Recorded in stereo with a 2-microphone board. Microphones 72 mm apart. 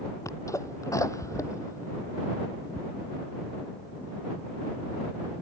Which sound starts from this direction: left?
A sneeze, at 0.2 s.